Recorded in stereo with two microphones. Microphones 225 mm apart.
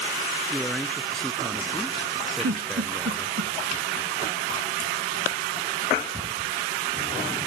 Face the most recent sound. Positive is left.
turn(degrees=-90)